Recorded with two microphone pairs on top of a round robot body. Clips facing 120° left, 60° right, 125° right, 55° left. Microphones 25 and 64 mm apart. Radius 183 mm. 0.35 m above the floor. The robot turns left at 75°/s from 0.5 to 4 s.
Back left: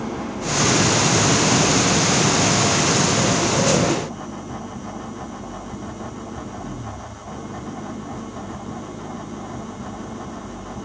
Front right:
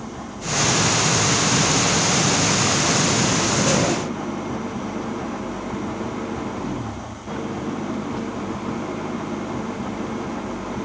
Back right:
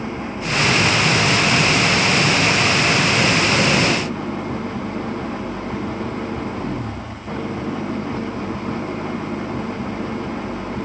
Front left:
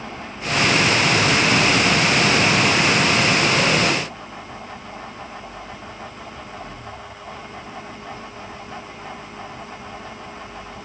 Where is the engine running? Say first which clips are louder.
Back left 5 dB, back right 5 dB; 175° left; by 10.8 s 85° right.